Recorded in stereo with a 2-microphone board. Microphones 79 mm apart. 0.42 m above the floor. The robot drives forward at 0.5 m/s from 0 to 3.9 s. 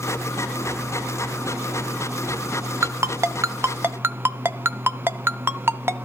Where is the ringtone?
35° right (ahead or behind), 0.5 m; by 6.1 s 30° right (ahead or behind), 0.6 m.